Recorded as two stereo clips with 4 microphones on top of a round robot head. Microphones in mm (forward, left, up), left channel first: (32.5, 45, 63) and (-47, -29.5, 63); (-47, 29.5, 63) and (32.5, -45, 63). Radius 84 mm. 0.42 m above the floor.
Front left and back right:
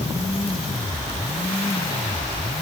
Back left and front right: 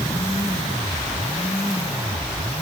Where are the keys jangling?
I don't hear keys jangling.